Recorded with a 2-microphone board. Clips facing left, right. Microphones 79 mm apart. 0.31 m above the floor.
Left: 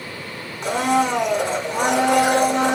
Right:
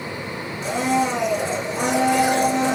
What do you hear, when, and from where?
0.6 s a blender: 60° left (ahead or behind), 4 m